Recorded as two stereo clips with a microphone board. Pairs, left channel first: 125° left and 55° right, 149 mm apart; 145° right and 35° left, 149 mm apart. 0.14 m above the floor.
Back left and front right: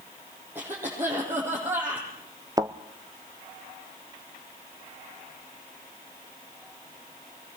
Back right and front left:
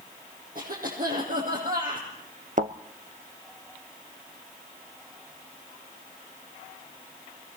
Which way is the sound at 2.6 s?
10° left.